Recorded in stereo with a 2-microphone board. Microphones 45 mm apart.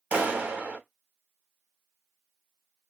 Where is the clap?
30° right (ahead or behind), 1.4 m.